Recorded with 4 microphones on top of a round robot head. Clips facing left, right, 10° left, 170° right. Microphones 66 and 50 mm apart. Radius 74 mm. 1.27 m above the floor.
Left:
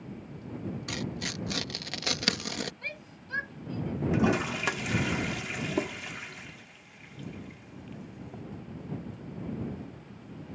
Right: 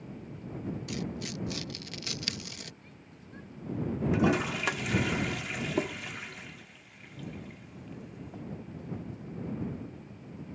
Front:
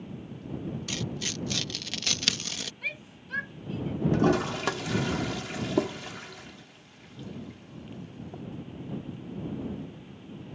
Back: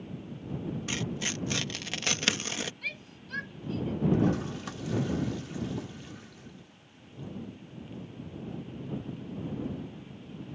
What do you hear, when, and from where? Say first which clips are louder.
0.9 s tearing paper: left 1 dB, back 3 dB; 125° left
2.8 s a shout: left 10 dB, front 2 dB; 80° left
4.1 s a toilet flushing: left 1 dB, front 8 dB; straight ahead